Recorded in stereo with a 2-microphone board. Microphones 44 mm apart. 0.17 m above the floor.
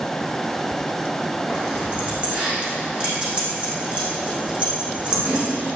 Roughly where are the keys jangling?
Right.